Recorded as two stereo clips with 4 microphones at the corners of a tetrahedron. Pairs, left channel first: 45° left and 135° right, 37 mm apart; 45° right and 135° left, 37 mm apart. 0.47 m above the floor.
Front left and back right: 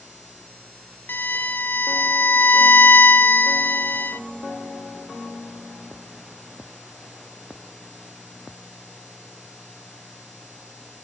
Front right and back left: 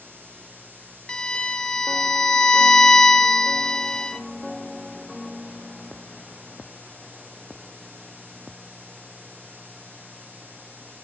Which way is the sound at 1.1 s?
20° left.